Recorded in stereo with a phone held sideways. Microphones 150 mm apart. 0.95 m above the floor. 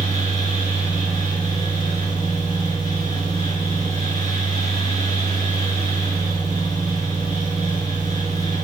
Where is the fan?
45° left (ahead or behind), 4 m.